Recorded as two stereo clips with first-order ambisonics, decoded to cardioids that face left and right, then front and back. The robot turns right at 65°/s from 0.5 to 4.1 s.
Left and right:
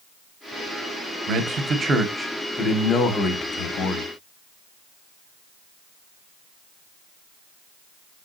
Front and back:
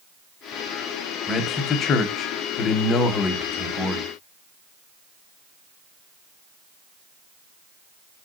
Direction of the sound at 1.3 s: 70° right.